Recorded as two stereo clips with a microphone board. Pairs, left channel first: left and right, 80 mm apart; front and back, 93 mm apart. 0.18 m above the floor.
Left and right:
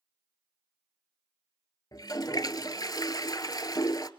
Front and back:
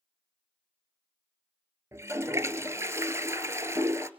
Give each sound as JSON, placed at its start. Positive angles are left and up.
{"t": 1.9, "sound": "a toilet flushing", "azimuth_deg": 120, "distance_m": 1.0}